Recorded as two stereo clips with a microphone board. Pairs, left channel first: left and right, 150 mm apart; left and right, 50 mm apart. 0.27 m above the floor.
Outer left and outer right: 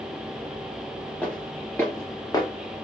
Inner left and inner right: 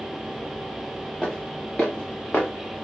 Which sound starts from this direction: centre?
Footsteps, at 1.2 s.